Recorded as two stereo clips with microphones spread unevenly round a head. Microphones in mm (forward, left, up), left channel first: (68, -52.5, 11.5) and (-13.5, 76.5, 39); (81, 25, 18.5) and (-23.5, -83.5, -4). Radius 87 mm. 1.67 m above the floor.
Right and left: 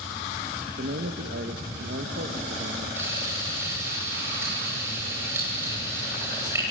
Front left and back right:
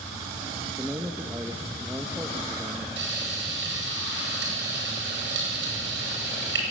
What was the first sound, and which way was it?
A man speaking, 140° left.